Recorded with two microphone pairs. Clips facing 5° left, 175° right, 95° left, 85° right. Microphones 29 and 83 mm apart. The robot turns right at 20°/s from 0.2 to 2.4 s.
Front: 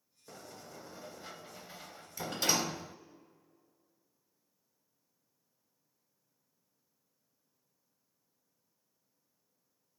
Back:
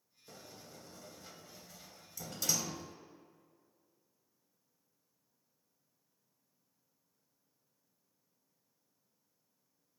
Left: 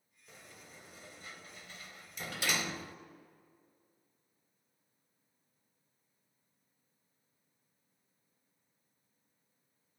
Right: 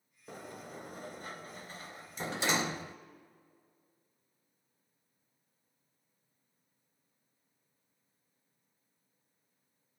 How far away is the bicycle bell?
No bicycle bell in this recording.